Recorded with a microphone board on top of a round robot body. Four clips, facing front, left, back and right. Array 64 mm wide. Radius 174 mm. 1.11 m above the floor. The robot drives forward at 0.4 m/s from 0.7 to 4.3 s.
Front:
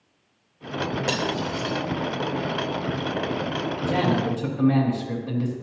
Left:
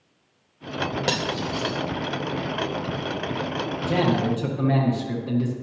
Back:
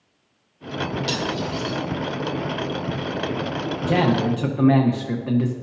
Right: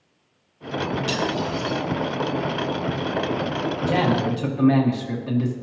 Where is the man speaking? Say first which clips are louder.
Even, back 4 dB; straight behind, 1.2 m.